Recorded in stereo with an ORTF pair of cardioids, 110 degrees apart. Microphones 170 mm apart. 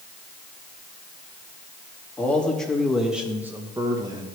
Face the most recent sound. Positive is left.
turn(degrees=-30)